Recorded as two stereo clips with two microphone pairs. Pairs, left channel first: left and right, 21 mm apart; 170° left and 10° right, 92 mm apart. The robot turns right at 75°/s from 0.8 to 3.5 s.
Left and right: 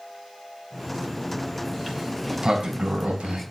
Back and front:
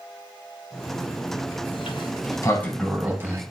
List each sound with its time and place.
1.7 s a sliding door: 170° left, 3.5 m; by 3.4 s 60° right, 3.5 m